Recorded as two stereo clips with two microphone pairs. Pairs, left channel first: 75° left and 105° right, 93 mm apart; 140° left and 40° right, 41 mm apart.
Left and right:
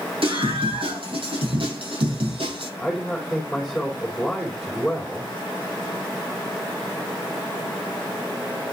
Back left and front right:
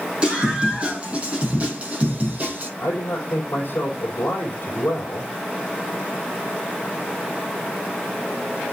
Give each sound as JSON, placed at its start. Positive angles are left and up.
{"t": 0.2, "sound": "a scream", "azimuth_deg": -110, "distance_m": 7.0}
{"t": 2.8, "sound": "a man speaking", "azimuth_deg": 170, "distance_m": 4.0}